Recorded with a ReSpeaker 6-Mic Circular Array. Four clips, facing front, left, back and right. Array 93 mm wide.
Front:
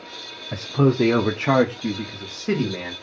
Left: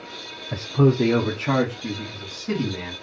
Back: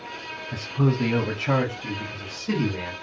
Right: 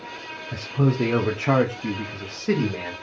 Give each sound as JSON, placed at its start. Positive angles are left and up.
{"t": 0.5, "sound": "a man speaking", "azimuth_deg": 40, "distance_m": 0.6}